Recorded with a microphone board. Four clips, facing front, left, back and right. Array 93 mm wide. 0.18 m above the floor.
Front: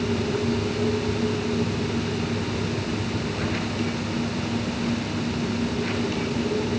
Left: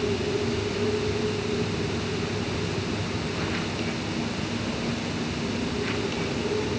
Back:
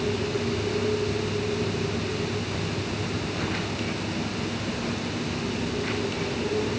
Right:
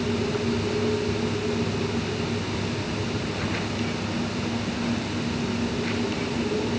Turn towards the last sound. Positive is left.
No sound to turn to.